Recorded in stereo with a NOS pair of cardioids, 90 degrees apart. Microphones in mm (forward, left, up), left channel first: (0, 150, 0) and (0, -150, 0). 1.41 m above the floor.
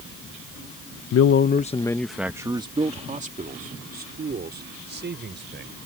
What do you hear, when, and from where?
1.1 s a man speaking: 55° left; by 5.7 s 40° right